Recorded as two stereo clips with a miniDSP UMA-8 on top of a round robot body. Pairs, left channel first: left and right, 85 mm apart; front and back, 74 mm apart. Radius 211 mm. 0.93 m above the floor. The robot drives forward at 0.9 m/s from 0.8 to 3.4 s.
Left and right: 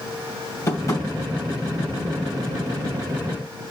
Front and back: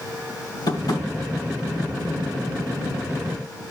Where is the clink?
No clink in this recording.